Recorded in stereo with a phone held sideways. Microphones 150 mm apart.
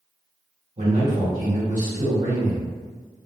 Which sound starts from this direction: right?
A man speaking, at 0.8 s.